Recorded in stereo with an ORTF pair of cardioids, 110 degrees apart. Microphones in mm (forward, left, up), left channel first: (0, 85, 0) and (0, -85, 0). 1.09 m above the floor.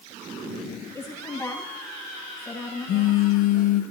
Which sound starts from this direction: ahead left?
A phone buzzing, at 2.9 s.